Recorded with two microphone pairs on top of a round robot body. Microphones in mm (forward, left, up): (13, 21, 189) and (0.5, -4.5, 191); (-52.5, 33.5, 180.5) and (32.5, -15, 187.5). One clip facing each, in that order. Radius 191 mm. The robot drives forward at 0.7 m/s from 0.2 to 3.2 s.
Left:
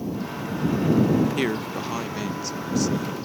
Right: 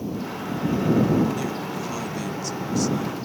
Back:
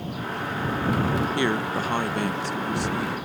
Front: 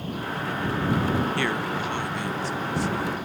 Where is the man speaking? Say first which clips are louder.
Left 3 dB, back 2 dB; 85° left; by 3.2 s 150° left.